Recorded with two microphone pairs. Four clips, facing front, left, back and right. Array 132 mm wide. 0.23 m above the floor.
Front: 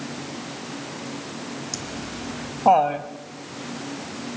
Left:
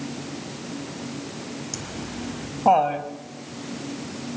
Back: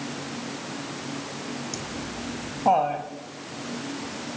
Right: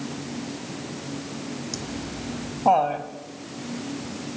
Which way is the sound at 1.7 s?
10° left.